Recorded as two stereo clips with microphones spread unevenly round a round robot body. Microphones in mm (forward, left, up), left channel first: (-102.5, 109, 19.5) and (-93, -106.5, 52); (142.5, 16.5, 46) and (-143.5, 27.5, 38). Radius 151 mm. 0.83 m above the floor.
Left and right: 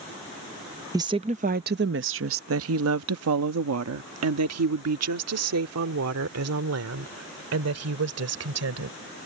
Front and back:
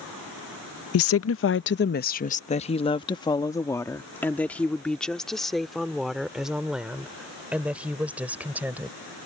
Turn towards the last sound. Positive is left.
turn(degrees=-95)